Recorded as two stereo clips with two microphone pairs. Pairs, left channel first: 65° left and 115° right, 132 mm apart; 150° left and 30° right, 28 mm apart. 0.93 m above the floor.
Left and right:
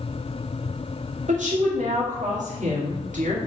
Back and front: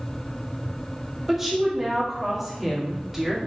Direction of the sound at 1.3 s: 110° right.